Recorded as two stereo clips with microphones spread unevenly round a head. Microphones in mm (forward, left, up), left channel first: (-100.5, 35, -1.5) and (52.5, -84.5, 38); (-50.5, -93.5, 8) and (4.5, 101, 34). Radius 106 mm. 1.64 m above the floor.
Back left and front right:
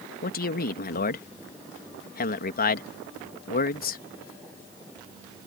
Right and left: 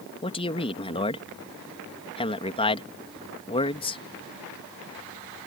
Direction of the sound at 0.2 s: 170° right.